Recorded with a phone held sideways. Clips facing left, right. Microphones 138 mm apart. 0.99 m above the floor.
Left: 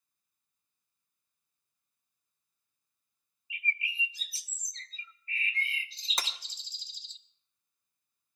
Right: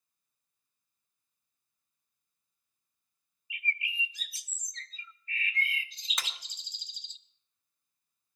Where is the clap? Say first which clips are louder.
Left 3 dB; 35° left (ahead or behind), 1.4 m.